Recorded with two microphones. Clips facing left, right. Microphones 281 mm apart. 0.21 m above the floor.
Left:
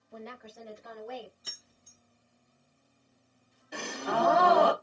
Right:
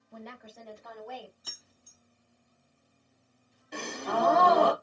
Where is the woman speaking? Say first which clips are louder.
Left 1 dB; 5° right (ahead or behind), 1.4 m; by 1.3 s 30° left (ahead or behind), 1.5 m.